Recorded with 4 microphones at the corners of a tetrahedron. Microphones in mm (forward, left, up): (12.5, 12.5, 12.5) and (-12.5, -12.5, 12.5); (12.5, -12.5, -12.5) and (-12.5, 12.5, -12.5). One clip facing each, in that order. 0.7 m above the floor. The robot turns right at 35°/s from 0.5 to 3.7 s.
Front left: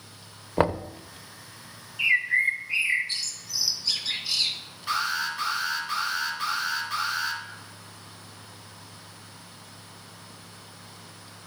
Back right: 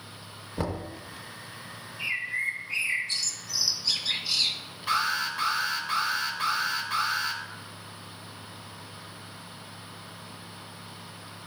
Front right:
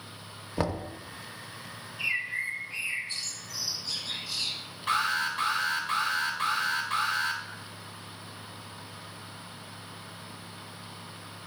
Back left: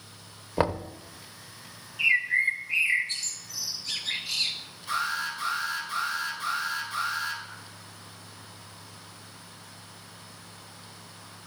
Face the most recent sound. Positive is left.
turn(degrees=-50)